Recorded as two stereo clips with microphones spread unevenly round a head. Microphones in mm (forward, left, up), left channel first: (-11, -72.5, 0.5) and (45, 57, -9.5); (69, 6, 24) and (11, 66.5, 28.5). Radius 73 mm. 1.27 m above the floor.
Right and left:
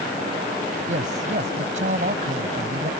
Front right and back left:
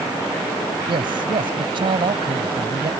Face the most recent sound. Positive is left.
turn(degrees=110)